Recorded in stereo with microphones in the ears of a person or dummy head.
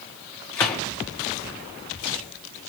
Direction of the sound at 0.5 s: 15° left (ahead or behind).